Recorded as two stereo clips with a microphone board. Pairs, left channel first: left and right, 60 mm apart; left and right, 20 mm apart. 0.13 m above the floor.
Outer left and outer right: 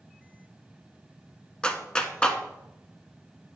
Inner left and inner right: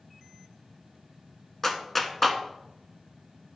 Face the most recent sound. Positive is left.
turn(degrees=15)  # may be behind; listen again after turning